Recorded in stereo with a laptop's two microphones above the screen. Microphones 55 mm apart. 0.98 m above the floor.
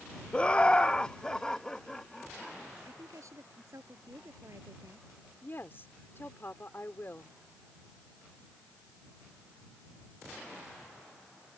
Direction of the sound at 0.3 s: 20° left (ahead or behind).